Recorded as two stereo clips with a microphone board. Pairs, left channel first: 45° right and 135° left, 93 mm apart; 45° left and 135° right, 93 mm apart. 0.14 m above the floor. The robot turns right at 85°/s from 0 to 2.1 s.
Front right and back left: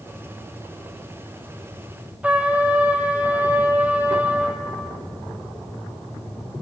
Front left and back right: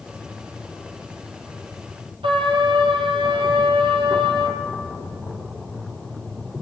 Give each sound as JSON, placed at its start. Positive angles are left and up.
{"t": 2.2, "sound": "a trumpet", "azimuth_deg": -150, "distance_m": 2.0}